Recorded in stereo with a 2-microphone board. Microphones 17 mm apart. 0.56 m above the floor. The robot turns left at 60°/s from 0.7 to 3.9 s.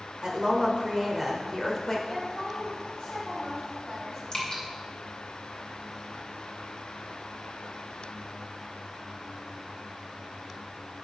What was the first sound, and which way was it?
A woman speaking, 135° right.